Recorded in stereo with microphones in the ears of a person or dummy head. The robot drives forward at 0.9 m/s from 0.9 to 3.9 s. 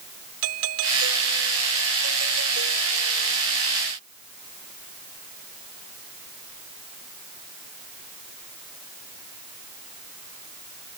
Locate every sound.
0.4 s a doorbell: 80° right; by 3.4 s 75° right (ahead or behind)